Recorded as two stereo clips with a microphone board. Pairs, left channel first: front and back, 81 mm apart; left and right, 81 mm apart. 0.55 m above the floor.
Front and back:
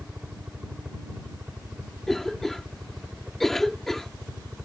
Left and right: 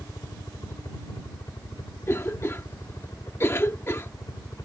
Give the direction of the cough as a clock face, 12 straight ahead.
9 o'clock.